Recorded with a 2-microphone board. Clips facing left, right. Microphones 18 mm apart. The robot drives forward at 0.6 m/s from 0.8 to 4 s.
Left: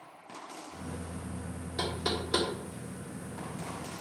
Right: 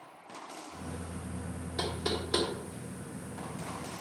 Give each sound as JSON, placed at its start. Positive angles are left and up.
{"t": 1.8, "sound": "knocking", "side_deg": 5, "distance_m": 2.0}